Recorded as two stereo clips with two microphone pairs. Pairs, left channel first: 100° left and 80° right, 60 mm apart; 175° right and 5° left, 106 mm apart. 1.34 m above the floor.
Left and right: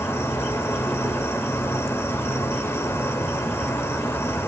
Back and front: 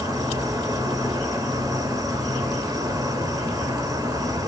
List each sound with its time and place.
0.0 s an insect: 60° left, 2.5 m